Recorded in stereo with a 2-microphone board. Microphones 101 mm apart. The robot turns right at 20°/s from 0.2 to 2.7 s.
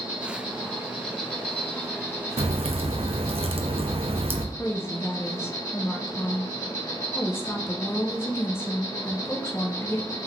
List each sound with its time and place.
0.0 s an insect: 15° right, 1.9 m; by 10.3 s 35° left, 1.9 m
2.4 s a crack: 80° right, 0.5 m; by 4.5 s 75° right (ahead or behind), 0.5 m
4.5 s a woman speaking: 25° left (ahead or behind), 0.6 m